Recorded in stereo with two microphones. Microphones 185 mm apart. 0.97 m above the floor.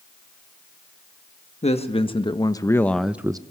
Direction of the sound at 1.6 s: 35° left (ahead or behind).